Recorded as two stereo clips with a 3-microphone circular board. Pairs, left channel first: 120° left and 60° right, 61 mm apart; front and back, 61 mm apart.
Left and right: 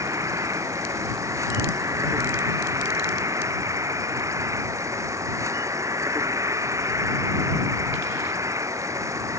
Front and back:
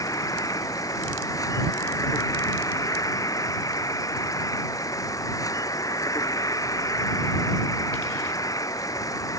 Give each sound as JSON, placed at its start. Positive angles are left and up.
{"t": 0.0, "sound": "an insect", "azimuth_deg": -25}